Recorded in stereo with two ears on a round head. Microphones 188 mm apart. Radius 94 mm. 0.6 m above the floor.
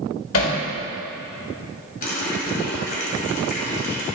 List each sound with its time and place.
0.3 s hammering: 75° left (ahead or behind), 1.7 m
2.0 s a running tap: 40° left (ahead or behind), 2 m